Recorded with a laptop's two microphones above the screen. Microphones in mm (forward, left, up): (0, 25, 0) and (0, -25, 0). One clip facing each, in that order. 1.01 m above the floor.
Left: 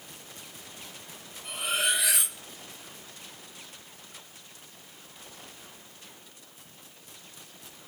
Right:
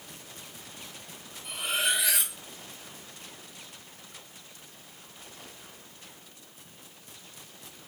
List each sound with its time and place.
1.4 s cutlery clinking: 55° left (ahead or behind), 0.9 m